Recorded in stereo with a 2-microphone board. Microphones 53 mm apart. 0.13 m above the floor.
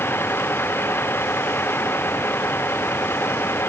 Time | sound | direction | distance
0.0 | a vehicle | 45° left (ahead or behind) | ?